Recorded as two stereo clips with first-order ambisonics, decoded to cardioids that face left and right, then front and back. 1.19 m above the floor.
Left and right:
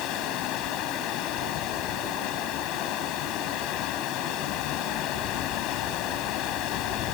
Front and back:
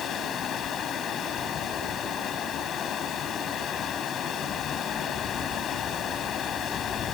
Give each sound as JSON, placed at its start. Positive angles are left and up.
{"t": 0.0, "sound": "running water", "azimuth_deg": 60}